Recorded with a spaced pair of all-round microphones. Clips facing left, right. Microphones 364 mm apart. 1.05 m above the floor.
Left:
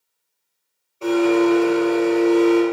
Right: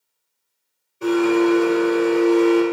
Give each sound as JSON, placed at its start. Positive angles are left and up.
{"t": 1.0, "sound": "a blender", "side_deg": -25, "distance_m": 3.0}